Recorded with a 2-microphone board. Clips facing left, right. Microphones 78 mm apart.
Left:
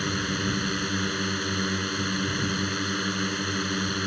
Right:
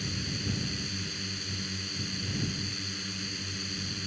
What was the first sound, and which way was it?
A drone, 60° left (ahead or behind).